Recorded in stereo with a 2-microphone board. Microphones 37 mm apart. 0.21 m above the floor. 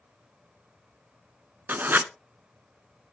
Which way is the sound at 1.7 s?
60° right (ahead or behind).